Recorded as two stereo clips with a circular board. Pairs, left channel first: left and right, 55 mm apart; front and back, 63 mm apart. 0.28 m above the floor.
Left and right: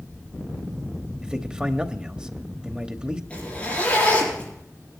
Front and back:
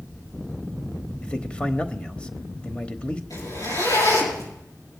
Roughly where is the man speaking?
Ahead right.